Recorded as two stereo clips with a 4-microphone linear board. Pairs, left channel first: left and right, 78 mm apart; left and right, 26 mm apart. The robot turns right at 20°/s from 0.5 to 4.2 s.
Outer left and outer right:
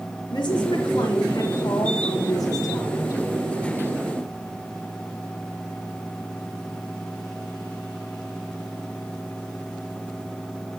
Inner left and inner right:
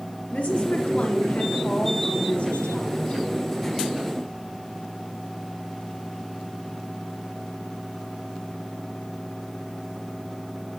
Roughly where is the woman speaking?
Left.